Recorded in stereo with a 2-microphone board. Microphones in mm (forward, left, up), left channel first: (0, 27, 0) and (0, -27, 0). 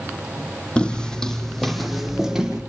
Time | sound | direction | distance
0.8 | footsteps | 20° left (ahead or behind) | 3 m